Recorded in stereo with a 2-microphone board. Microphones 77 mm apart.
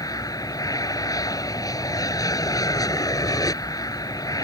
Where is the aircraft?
55° left (ahead or behind).